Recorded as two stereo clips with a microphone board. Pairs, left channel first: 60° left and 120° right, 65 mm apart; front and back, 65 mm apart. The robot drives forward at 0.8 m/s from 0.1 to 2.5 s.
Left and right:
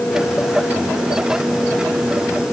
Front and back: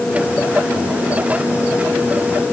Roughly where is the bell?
No bell in this recording.